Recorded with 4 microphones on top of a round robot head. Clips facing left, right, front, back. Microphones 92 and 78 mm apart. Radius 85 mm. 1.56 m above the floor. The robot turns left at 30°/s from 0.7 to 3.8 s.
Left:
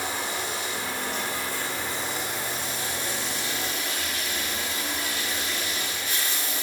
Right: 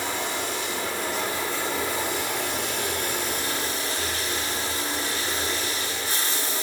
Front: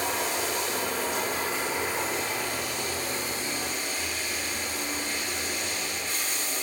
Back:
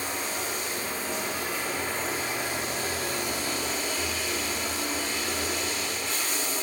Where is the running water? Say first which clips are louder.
Right 2 dB, front 3 dB; 50° right, 1.5 m; by 6.6 s 140° right, 1.5 m.